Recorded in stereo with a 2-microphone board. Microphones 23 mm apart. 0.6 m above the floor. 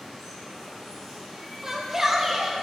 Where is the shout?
15° right (ahead or behind), 1.0 m.